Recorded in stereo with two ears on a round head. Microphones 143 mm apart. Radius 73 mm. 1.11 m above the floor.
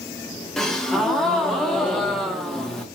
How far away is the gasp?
About 1.1 m.